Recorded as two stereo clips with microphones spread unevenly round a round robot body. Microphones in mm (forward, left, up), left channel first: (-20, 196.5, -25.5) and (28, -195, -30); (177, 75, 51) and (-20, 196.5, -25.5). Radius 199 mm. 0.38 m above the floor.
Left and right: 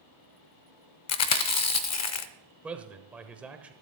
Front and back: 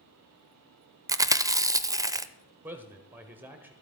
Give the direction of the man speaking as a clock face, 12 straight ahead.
6 o'clock.